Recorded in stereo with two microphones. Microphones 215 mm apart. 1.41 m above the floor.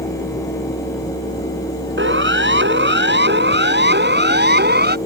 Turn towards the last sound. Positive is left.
turn(degrees=-50)  # may be behind; listen again after turning